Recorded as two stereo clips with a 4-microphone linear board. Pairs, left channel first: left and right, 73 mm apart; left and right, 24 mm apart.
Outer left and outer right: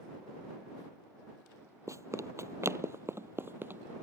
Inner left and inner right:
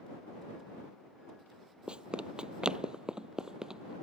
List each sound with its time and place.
1.9 s running footsteps: 45° right (ahead or behind); by 3.9 s 30° right (ahead or behind)